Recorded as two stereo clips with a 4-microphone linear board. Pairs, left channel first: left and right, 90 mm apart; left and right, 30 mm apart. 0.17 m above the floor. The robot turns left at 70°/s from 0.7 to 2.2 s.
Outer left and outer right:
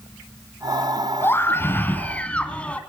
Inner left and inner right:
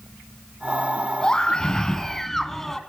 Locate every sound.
1.2 s a scream: 25° left (ahead or behind), 1.7 m; by 2.8 s 15° left (ahead or behind), 1.7 m